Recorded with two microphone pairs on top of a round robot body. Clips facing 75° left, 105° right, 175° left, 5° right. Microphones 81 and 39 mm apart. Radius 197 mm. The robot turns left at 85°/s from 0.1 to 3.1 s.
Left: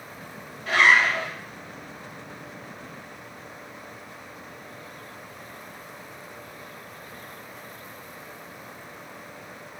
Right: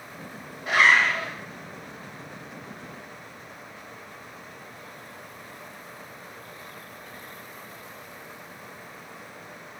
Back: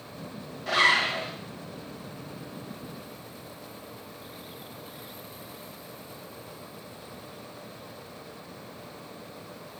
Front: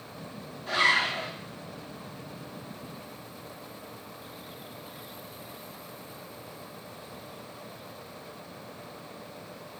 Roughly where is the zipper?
Behind.